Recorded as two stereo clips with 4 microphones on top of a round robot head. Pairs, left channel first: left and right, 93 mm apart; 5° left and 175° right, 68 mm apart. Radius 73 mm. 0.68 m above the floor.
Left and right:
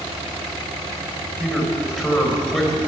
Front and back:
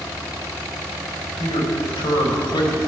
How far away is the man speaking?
About 4 m.